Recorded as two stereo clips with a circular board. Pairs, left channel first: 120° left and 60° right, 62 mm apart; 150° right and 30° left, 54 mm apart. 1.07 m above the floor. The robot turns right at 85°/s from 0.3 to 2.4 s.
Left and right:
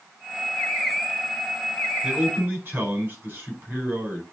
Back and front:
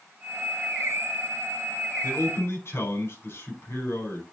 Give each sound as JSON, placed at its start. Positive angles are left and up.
{"t": 2.0, "sound": "a man speaking", "azimuth_deg": -150, "distance_m": 4.0}